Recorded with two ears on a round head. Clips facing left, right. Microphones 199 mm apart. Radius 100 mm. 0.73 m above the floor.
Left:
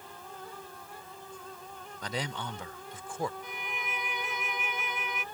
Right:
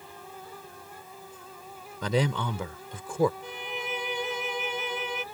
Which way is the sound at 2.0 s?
70° right (ahead or behind).